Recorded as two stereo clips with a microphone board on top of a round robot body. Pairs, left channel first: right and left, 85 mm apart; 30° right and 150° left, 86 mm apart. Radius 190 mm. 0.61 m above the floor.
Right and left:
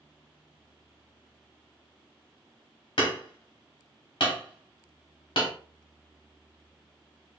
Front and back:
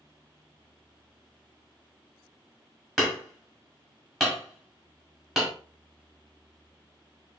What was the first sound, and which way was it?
Hammering, 120° right.